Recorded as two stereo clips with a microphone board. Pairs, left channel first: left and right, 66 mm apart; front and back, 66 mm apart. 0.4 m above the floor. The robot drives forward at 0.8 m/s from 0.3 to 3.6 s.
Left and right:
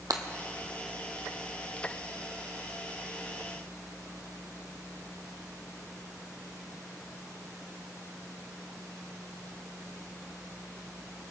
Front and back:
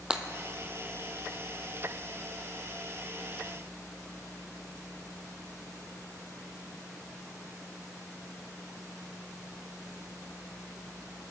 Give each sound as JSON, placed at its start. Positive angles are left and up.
{"t": 0.1, "sound": "breaking glass", "azimuth_deg": -105, "distance_m": 0.9}